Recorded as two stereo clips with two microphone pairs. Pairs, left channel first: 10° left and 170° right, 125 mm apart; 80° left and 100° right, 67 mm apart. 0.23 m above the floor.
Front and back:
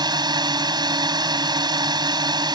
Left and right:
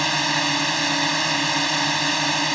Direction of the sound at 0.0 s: 165° left.